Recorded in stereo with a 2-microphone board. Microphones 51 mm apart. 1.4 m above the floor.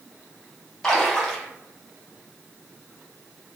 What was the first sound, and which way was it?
A splash, 10° left (ahead or behind).